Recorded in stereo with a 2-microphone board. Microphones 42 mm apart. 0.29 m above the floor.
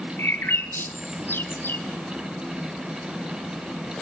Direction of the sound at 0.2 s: 60° left (ahead or behind).